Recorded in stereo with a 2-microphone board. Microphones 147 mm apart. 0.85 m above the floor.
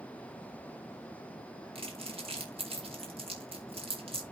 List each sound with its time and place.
1.8 s crumpling: 40° right (ahead or behind), 3 m